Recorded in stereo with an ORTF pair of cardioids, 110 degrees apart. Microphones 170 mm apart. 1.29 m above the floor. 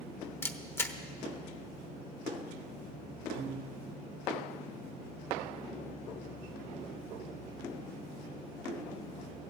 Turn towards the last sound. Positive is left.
turn(degrees=-65)